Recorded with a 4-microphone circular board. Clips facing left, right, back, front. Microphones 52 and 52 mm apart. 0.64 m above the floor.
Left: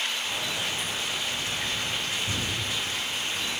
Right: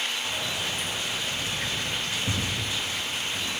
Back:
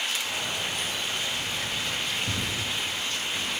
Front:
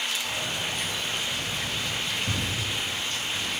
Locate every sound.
0.2 s keys jangling: 85° right, 2.5 m; by 3.5 s 135° right, 2 m